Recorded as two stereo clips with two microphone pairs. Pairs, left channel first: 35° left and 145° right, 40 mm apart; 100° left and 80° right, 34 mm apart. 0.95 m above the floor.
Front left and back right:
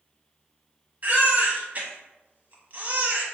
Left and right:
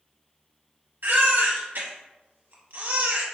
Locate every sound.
1.0 s a baby crying: 95° right, 1.0 m